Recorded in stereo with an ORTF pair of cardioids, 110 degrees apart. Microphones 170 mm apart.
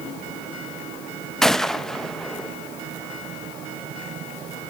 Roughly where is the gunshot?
Ahead.